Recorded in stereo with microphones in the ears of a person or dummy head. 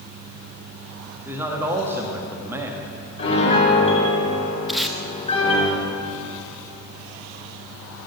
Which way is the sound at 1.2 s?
15° right (ahead or behind).